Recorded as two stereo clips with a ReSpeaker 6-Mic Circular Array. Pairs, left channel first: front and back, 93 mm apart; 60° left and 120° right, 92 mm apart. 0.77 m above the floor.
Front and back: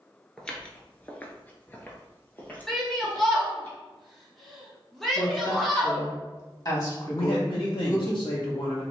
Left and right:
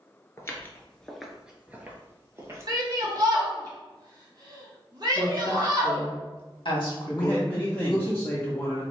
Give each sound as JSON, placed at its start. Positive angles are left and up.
{"t": 0.4, "sound": "footsteps", "azimuth_deg": 70, "distance_m": 0.8}
{"t": 2.7, "sound": "a shout", "azimuth_deg": -85, "distance_m": 1.5}
{"t": 5.2, "sound": "a woman speaking", "azimuth_deg": 40, "distance_m": 1.4}
{"t": 7.1, "sound": "a man speaking", "azimuth_deg": -10, "distance_m": 0.7}